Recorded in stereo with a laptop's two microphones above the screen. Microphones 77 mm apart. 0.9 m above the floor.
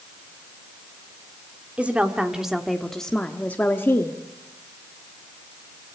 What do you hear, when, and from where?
1.8 s a woman speaking: 15° right (ahead or behind), 2.0 m; by 4.2 s 35° left (ahead or behind), 1.5 m